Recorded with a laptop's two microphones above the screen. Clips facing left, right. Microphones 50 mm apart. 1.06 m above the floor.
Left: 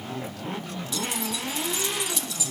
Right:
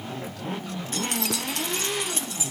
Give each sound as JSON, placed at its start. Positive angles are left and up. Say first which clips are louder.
{"t": 0.9, "sound": "keys jangling", "louder": "right 2 dB", "side_deg": -45, "distance_m": 0.6}